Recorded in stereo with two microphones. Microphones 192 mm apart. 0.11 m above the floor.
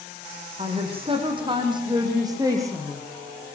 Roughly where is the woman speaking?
Right.